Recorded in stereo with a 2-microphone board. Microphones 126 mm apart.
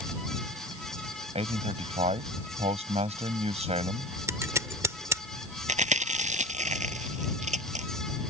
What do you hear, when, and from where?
1.4 s a man speaking: 55° right (ahead or behind)
4.3 s scissors: 25° right (ahead or behind)
5.7 s chewing: 70° right (ahead or behind)